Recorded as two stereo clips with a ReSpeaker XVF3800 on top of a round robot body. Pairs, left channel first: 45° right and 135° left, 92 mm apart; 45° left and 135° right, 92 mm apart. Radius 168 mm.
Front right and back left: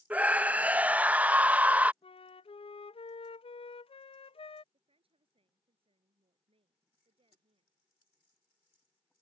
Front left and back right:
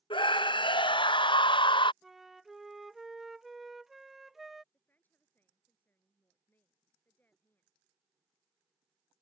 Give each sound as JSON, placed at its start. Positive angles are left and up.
{"t": 0.1, "sound": "a scream", "azimuth_deg": 60}
{"t": 2.0, "sound": "a flute", "azimuth_deg": -45}
{"t": 4.7, "sound": "a woman speaking", "azimuth_deg": 115}